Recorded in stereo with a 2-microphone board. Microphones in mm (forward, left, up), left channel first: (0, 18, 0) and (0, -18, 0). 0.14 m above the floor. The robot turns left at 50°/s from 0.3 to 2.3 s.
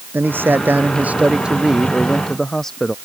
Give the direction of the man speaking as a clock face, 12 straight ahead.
3 o'clock.